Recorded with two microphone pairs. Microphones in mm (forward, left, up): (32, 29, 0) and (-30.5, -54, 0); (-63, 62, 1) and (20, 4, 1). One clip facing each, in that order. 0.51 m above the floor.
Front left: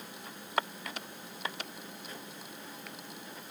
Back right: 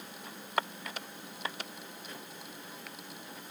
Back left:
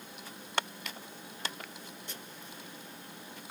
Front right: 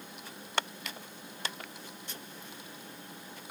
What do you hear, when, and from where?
Only background noise.